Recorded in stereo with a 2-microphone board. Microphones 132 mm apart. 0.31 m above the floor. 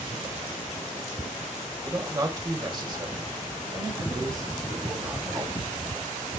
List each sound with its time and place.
1.8 s a man speaking: 20° right (ahead or behind), 1.5 m; by 5.5 s 25° right (ahead or behind), 3.5 m